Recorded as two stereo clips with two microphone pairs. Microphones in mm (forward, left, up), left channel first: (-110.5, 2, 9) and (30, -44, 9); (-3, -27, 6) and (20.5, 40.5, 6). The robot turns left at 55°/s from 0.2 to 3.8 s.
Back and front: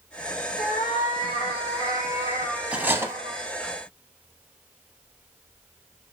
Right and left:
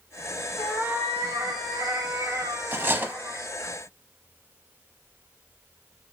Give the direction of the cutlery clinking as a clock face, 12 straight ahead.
10 o'clock.